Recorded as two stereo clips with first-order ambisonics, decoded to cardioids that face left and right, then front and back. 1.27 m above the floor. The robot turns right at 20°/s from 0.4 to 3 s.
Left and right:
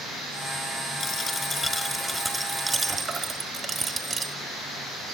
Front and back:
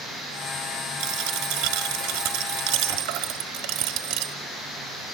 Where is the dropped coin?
155° left, 1.4 m; by 4.3 s 165° right, 1.4 m.